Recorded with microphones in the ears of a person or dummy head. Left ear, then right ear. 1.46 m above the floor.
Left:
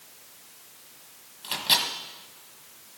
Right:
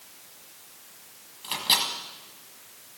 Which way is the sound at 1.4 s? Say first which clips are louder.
Even; 5° left (ahead or behind).